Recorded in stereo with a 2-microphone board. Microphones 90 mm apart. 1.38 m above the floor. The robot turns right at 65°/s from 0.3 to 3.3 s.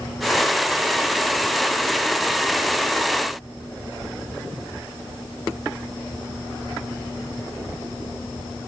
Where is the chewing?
I don't hear chewing.